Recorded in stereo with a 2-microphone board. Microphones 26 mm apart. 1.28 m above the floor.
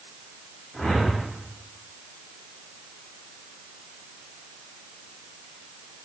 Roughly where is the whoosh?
Left.